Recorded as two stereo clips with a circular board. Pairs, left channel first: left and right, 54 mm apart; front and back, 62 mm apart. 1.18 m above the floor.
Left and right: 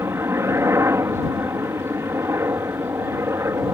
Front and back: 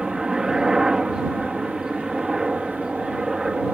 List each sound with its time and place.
0.0 s a helicopter: 105° right